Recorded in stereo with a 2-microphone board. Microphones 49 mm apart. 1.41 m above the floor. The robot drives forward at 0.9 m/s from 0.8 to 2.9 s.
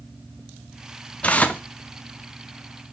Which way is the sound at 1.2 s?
25° left (ahead or behind).